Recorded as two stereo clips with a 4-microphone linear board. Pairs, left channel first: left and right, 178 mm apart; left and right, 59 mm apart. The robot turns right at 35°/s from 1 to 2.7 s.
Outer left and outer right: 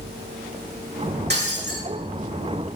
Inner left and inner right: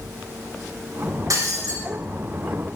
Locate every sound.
1.3 s breaking glass: 70° right (ahead or behind), 5 m; by 1.8 s 80° right, 5 m